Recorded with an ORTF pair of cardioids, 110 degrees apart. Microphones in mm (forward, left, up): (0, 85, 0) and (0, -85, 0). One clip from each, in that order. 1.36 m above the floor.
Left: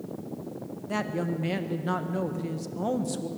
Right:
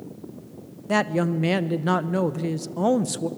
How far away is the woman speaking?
About 1.0 m.